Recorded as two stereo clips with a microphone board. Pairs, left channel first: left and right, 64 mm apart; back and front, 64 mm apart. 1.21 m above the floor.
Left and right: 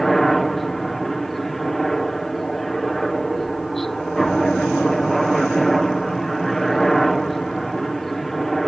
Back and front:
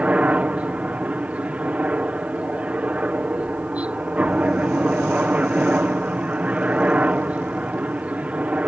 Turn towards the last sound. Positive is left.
turn(degrees=10)